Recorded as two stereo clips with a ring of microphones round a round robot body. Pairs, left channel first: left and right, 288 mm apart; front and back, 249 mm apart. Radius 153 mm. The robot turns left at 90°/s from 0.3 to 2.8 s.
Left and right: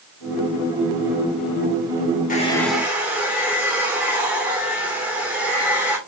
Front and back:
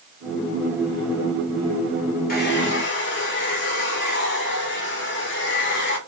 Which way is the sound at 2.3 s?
40° left.